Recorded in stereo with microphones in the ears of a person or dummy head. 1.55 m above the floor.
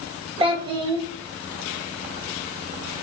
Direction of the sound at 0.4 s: 30° right (ahead or behind).